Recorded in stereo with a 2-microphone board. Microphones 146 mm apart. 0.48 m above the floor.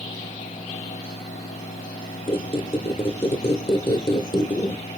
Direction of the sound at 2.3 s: 35° left (ahead or behind).